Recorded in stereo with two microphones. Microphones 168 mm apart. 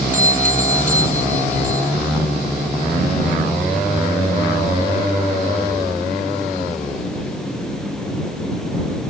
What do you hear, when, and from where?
0.1 s a doorbell: 50° right (ahead or behind)